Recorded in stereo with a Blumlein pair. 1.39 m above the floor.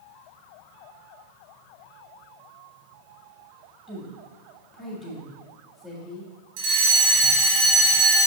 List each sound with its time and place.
3.9 s a woman speaking: 15° left, 1.9 m
6.6 s a fire alarm: 45° right, 3.5 m